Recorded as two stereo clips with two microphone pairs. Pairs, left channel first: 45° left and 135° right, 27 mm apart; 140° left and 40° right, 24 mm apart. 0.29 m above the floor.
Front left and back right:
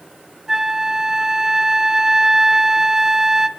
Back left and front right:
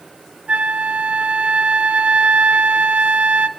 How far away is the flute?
About 1.0 m.